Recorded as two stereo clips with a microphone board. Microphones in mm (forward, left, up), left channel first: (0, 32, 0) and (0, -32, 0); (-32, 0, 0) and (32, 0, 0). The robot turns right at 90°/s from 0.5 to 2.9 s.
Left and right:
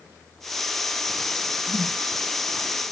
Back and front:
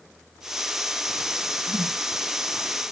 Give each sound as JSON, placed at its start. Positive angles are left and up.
{"t": 1.7, "sound": "a whoosh", "azimuth_deg": -40}